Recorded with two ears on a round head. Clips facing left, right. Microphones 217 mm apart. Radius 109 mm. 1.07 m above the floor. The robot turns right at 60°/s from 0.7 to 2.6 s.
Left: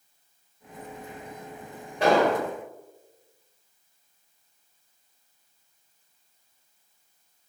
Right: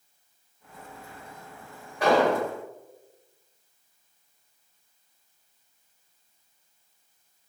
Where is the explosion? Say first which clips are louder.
Even; 25° left (ahead or behind), 1.8 m; by 2.5 s centre (ahead or behind), 1.8 m.